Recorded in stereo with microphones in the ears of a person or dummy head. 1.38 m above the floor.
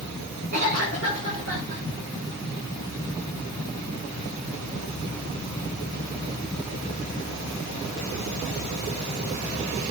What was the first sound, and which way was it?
A cough, 75° right (ahead or behind).